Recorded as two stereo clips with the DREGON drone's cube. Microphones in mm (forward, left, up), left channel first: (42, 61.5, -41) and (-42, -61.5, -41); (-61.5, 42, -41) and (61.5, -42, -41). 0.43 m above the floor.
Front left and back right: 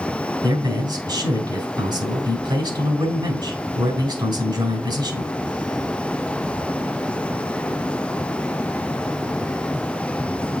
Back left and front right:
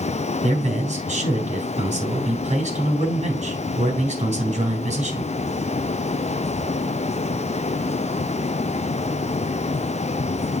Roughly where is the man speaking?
Ahead right.